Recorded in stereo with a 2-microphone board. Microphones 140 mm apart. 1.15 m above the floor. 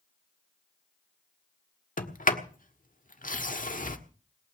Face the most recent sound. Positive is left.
turn(degrees=75)  # may be behind; listen again after turning